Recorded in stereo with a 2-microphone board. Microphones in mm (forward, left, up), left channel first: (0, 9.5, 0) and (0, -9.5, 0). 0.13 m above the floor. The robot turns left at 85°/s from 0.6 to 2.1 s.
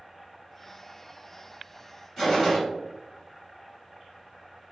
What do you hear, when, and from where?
2.2 s a gunshot: 15° left (ahead or behind), 1.6 m